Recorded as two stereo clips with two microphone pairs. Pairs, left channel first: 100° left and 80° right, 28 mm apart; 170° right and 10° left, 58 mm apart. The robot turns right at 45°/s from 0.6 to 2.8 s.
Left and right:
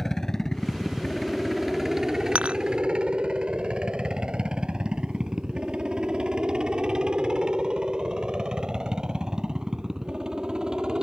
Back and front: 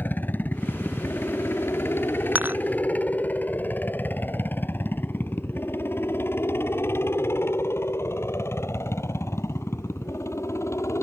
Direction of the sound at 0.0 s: 160° left.